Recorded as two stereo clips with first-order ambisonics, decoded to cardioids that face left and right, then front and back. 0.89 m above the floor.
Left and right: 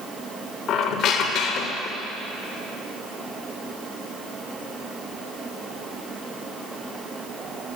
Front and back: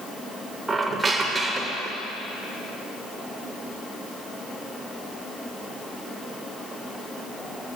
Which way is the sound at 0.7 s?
105° left.